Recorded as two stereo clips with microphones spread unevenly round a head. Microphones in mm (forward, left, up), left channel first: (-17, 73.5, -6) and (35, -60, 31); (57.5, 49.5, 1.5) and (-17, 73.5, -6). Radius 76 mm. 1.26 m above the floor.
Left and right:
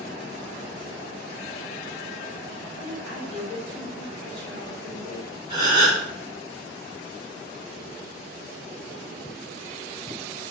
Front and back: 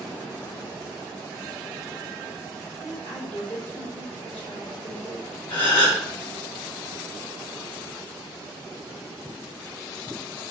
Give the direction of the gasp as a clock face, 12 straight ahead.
12 o'clock.